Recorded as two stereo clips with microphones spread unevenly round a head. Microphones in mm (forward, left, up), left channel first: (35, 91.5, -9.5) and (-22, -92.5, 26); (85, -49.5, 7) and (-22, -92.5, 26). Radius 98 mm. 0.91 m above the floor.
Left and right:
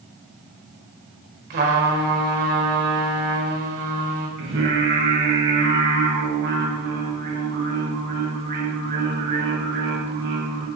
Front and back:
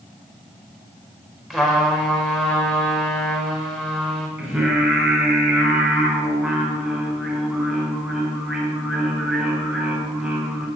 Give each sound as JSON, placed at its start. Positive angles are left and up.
{"t": 1.5, "sound": "a trumpet", "azimuth_deg": -70, "distance_m": 5.0}
{"t": 4.4, "sound": "singing", "azimuth_deg": -80, "distance_m": 6.0}